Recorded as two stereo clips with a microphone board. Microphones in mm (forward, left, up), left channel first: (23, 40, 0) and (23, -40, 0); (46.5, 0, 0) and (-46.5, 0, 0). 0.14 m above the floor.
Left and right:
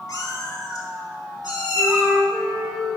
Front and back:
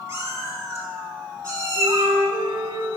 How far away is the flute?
About 2.5 m.